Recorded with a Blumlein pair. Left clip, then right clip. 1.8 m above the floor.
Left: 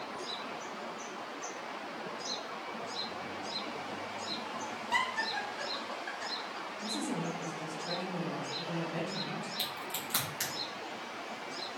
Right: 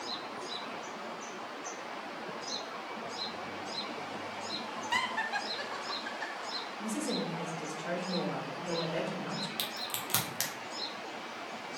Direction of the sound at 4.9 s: 10° right.